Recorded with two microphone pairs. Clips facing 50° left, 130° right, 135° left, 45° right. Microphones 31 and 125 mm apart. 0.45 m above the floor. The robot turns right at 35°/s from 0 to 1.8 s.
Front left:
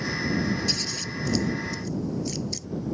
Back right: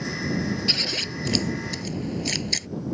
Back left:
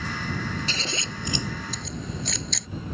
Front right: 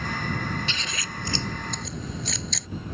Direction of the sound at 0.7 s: 170° right.